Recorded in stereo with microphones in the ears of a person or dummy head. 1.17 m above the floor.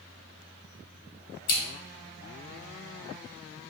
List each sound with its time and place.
1.5 s scissors: 55° left (ahead or behind), 1.2 m